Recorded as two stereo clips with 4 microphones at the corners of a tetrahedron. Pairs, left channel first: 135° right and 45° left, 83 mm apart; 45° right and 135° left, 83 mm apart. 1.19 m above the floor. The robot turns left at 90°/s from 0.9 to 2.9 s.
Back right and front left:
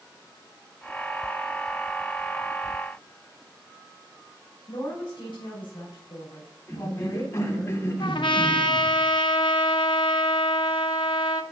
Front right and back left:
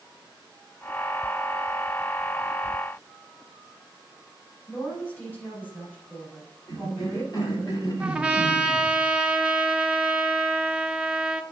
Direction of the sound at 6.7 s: 75° right.